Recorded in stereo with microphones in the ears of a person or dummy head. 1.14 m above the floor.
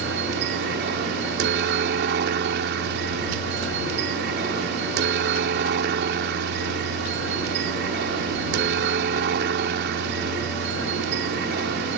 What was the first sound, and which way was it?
A helicopter, 60° right (ahead or behind).